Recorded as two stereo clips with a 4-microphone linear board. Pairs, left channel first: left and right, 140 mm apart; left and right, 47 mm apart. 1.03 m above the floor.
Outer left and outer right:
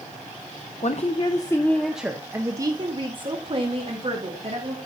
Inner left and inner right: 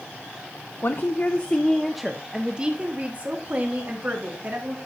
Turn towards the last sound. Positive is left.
turn(degrees=-45)  # may be behind; listen again after turning